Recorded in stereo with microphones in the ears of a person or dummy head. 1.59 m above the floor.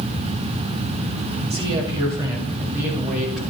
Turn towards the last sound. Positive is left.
turn(degrees=0)  # may be behind; listen again after turning